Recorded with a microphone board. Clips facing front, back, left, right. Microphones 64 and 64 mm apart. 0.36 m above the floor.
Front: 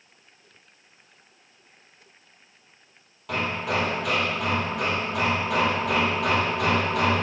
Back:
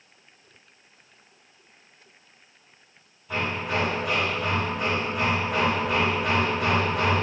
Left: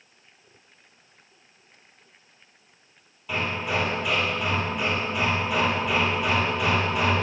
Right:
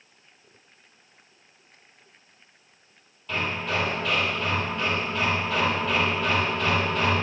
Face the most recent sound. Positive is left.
turn(degrees=15)